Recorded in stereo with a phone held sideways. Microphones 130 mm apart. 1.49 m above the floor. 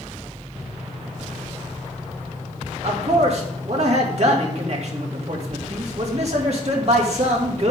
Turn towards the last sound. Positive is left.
turn(degrees=-55)  # may be behind; listen again after turning